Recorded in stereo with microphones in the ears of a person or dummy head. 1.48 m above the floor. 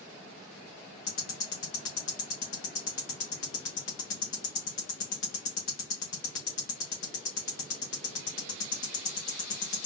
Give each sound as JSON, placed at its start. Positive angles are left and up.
{"t": 1.1, "sound": "ticking", "side_deg": 70, "distance_m": 1.0}